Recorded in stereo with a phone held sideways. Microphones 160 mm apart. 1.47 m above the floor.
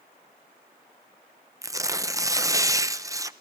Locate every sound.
1.6 s tearing paper: 20° right (ahead or behind), 0.6 m